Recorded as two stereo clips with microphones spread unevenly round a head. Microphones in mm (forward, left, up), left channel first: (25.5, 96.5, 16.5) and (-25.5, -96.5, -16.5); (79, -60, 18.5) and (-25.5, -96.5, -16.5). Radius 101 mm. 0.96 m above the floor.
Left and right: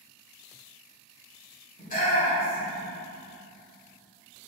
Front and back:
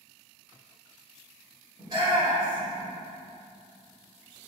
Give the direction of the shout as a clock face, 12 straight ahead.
8 o'clock.